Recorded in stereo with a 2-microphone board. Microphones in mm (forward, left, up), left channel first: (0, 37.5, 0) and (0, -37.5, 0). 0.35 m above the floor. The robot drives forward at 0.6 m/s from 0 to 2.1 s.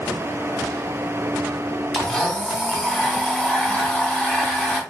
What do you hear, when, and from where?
1.9 s a blender: 10° left (ahead or behind), 2 m